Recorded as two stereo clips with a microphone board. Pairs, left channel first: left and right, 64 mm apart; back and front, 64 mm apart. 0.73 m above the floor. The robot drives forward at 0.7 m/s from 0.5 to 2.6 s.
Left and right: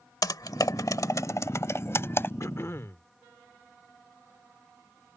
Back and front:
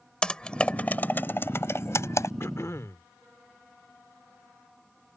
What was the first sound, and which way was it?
Typing on a keyboard, 105° left.